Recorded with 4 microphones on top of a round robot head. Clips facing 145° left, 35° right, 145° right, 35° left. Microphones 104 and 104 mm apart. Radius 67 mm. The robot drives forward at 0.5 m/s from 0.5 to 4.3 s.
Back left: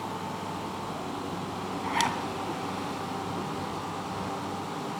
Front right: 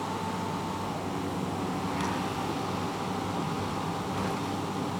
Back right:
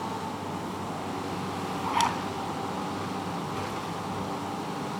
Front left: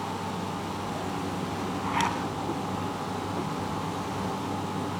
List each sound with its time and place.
1.8 s a zipper: 145° left, 3 m; by 2.2 s 150° left, 3 m